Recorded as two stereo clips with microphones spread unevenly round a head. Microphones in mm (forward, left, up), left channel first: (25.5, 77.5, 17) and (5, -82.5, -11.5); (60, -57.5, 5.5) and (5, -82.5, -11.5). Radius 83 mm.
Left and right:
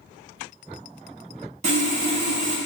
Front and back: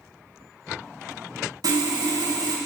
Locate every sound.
1.6 s sawing: 150° right, 0.7 m